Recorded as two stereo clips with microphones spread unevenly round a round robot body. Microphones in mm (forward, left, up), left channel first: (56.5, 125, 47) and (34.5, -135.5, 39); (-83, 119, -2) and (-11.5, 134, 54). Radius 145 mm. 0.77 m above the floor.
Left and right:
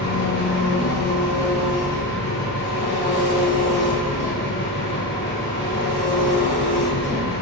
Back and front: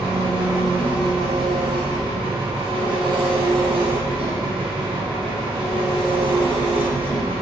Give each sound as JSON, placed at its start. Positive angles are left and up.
{"t": 0.0, "sound": "an engine running", "azimuth_deg": 50, "distance_m": 0.8}